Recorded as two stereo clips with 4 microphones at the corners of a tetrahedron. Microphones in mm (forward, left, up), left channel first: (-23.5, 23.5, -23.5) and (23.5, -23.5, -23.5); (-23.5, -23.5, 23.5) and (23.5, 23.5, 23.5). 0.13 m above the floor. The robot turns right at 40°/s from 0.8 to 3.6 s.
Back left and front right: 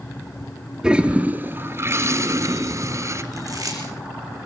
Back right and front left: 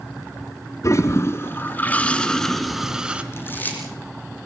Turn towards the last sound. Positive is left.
turn(degrees=-75)